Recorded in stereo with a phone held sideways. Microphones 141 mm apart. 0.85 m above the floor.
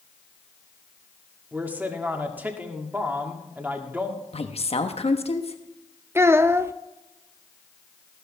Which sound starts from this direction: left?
A woman speaking, at 4.3 s.